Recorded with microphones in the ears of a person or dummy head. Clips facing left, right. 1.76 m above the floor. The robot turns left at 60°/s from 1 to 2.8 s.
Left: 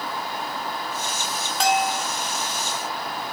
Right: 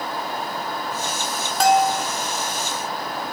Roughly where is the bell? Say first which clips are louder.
Right 5 dB; right.